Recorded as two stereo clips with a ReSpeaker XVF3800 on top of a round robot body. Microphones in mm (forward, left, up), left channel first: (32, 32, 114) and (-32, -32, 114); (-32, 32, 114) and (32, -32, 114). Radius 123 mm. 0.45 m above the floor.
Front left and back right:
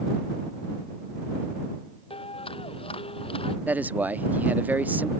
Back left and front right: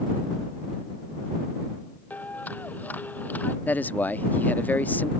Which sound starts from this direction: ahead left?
A clap, at 2.1 s.